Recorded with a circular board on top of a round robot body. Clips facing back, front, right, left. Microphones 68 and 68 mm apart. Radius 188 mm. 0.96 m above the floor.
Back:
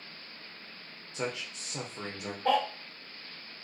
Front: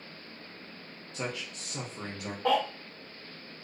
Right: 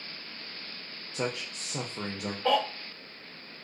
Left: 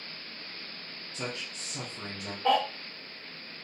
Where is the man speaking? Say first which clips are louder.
Back 1 dB, right 5 dB; 110° right, 0.6 m.